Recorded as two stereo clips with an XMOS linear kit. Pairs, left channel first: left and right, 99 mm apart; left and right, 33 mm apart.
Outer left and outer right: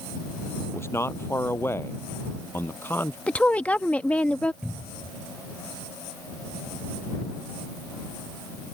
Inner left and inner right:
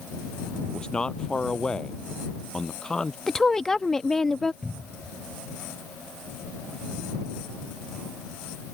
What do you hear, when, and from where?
0.7 s a man speaking: 25° left (ahead or behind); by 3.2 s 20° left (ahead or behind)
3.3 s a woman speaking: 15° left (ahead or behind)
4.6 s a cupboard door: 5° right (ahead or behind)